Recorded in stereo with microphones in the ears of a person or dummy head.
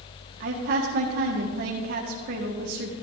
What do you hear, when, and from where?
0.4 s a woman speaking: 55° right (ahead or behind), 1.5 m